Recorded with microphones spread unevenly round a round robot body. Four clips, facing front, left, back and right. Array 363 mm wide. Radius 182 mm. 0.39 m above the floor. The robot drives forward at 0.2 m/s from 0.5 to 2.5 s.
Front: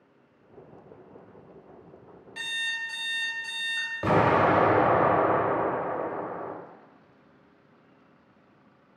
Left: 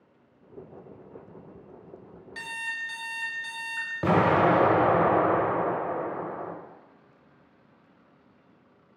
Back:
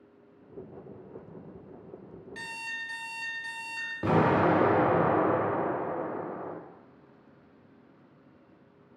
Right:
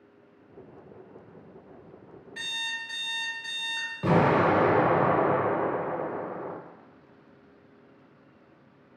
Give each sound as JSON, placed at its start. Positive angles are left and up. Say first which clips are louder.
{"t": 2.4, "sound": "an alarm clock", "louder": "left 2 dB, front 6 dB", "azimuth_deg": 115, "distance_m": 0.7}
{"t": 4.0, "sound": "an explosion", "louder": "left 1 dB, front 2 dB", "azimuth_deg": 85, "distance_m": 0.5}